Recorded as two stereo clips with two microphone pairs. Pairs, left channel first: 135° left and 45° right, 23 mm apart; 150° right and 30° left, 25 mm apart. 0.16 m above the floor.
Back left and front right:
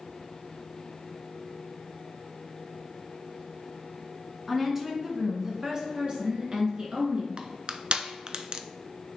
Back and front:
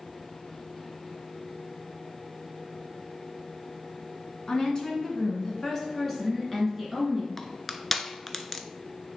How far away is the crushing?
About 0.5 m.